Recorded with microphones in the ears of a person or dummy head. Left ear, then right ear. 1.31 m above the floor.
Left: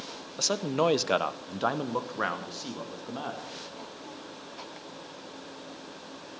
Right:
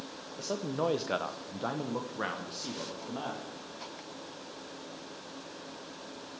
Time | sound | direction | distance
0.4 | a man speaking | 55° left (ahead or behind) | 1.1 m